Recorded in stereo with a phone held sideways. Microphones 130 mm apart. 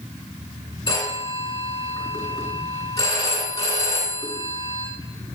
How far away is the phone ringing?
About 8 m.